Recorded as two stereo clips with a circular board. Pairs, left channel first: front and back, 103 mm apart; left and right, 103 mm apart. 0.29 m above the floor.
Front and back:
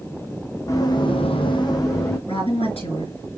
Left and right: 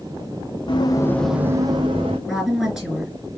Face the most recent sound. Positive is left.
turn(degrees=-5)